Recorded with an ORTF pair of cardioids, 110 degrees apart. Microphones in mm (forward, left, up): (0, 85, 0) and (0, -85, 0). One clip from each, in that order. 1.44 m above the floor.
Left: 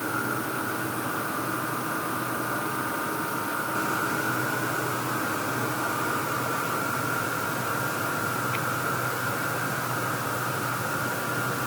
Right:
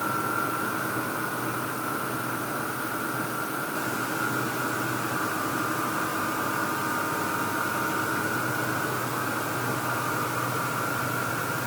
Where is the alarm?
No alarm in this recording.